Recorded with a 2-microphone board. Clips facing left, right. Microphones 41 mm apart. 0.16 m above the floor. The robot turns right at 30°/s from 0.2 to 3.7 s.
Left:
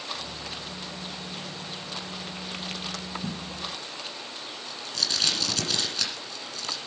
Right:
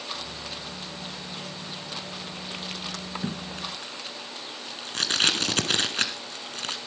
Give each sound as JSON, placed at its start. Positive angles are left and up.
{"t": 3.2, "sound": "tape being pulled", "side_deg": -45, "distance_m": 1.7}